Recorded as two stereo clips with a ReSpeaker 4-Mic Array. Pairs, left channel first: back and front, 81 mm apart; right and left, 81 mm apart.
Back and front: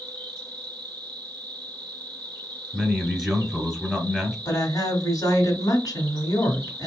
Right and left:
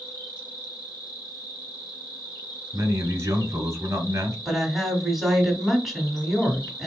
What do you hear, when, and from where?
0.0 s an insect: 35° right, 3 m
2.7 s a man speaking: 90° left, 1.3 m
4.5 s a woman speaking: 175° left, 1.5 m